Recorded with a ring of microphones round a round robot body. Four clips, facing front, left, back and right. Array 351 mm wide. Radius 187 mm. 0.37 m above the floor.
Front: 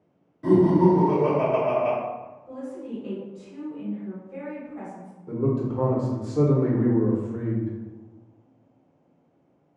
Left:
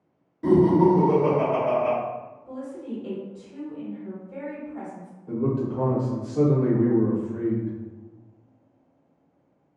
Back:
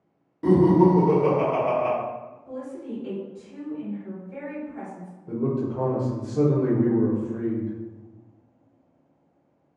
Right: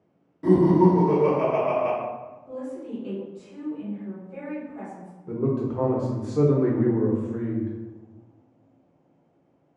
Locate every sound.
0.4 s laughter: straight behind, 1.5 m
2.5 s a woman speaking: 120° left, 1.4 m
5.3 s a man speaking: 75° right, 0.8 m